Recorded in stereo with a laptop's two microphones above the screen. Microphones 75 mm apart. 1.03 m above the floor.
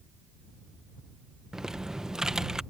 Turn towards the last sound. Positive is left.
turn(degrees=-5)  # may be behind; listen again after turning